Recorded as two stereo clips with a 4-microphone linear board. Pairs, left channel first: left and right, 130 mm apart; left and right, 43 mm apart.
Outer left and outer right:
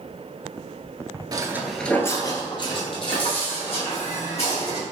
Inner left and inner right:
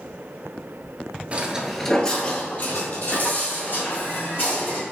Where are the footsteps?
35° right (ahead or behind), 0.8 m; by 4.8 s 55° left (ahead or behind), 3.5 m.